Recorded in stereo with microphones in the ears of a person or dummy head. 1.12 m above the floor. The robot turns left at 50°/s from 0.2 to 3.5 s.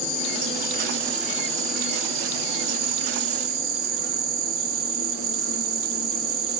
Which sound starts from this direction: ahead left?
An insect, at 0.0 s.